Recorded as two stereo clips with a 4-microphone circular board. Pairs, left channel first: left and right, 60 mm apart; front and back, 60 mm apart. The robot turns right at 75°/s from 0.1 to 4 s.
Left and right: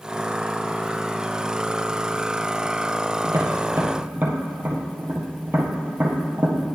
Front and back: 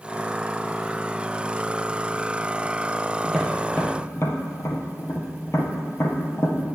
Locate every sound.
3.2 s tapping: 95° right, 1.5 m; by 6.6 s 35° right, 1.5 m